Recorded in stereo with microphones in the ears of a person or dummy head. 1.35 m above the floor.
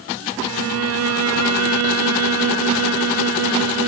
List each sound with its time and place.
0.4 s a violin: 70° right (ahead or behind), 0.9 m